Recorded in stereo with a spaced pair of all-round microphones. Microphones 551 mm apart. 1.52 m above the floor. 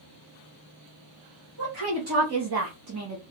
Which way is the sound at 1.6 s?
40° right (ahead or behind).